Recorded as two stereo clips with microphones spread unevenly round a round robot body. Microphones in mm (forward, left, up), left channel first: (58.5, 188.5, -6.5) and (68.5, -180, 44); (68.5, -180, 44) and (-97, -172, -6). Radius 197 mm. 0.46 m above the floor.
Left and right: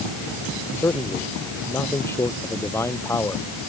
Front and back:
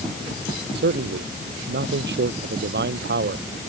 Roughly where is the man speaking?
Behind.